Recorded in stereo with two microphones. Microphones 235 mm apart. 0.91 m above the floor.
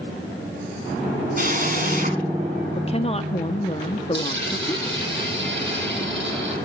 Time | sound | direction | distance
1.4 | a drill | 40° right (ahead or behind) | 5 m
2.8 | a woman speaking | 25° left (ahead or behind) | 1.5 m
4.1 | a dropped coin | 55° right (ahead or behind) | 7.5 m